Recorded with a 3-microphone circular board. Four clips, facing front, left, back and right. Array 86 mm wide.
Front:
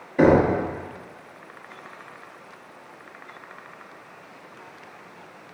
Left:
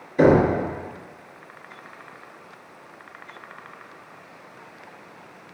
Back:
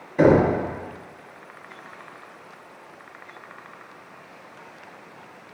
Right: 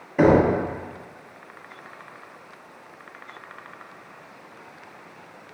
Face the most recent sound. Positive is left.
turn(degrees=-95)